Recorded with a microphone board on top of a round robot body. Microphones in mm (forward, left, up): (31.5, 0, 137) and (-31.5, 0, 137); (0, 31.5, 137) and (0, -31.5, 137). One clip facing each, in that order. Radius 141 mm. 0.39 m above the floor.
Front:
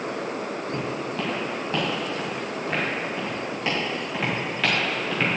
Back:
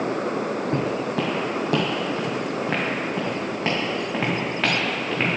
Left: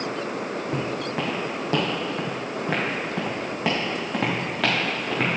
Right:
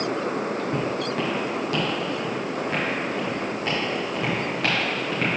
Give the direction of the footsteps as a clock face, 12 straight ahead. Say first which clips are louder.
Back 4 dB, right 2 dB; 6 o'clock.